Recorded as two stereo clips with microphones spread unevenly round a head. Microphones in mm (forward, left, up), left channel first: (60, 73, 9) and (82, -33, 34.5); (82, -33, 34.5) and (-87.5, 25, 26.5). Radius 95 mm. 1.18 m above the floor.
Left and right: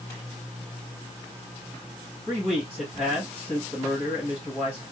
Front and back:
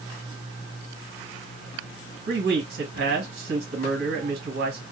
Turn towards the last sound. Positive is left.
turn(degrees=-165)